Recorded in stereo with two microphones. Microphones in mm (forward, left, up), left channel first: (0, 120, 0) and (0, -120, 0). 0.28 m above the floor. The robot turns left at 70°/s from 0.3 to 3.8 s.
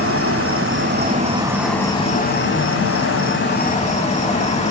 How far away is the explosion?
No explosion in this recording.